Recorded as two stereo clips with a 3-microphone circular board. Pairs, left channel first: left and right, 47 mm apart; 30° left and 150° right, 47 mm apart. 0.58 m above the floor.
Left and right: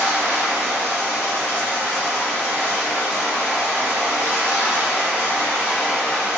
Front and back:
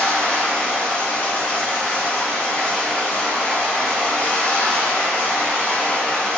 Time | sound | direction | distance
0.0 | running water | 90° left | 1.7 m